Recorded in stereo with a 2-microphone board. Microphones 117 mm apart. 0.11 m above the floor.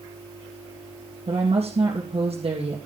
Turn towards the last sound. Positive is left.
turn(degrees=-60)  # may be behind; listen again after turning